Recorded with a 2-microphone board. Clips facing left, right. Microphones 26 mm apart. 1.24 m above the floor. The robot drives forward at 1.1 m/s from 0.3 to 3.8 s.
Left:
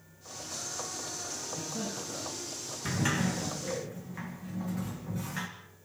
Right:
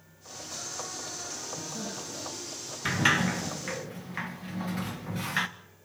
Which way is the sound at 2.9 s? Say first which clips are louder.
Right 6 dB; 50° right (ahead or behind).